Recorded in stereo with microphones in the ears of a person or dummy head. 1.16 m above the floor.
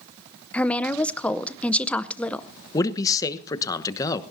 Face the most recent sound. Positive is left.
turn(degrees=20)  # may be behind; listen again after turning